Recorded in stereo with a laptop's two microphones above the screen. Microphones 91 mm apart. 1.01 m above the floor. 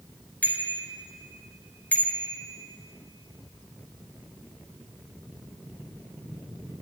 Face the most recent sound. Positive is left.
turn(degrees=15)  # may be behind; listen again after turning